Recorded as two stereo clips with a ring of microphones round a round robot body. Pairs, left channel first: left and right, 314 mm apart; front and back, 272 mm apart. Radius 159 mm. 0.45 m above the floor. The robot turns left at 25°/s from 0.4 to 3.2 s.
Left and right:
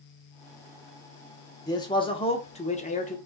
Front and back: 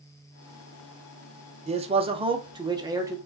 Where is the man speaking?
150° left, 0.8 m; by 3.2 s 115° left, 0.8 m.